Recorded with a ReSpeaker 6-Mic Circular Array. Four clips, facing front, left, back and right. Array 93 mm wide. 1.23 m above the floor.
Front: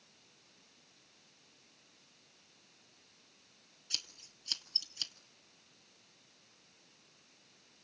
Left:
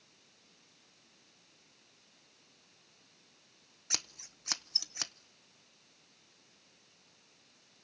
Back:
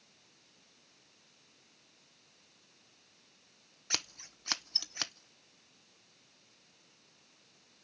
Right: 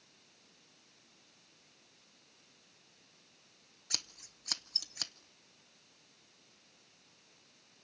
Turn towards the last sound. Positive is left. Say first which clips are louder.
# left 4 dB, back 12 dB
turn(degrees=165)